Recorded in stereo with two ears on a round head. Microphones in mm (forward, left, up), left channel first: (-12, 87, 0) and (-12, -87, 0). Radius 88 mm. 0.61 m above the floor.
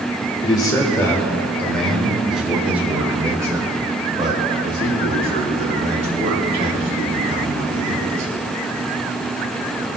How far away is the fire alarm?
I don't hear a fire alarm.